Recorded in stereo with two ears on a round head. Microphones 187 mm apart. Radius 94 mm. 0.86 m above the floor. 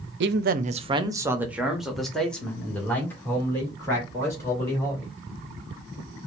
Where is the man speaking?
55° right (ahead or behind), 0.6 m; by 5.1 s 15° left (ahead or behind), 3 m.